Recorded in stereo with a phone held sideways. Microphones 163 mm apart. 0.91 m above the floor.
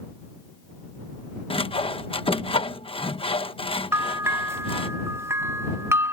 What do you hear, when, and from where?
1.5 s sawing: 35° left (ahead or behind)
3.9 s a bell: 15° right (ahead or behind)